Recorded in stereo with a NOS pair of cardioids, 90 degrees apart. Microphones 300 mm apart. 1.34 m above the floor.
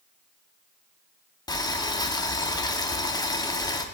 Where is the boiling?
15° left, 0.8 m.